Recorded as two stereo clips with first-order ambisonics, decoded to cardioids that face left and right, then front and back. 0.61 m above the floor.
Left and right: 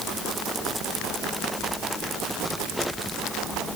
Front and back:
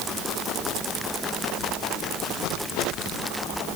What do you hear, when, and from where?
Only background noise.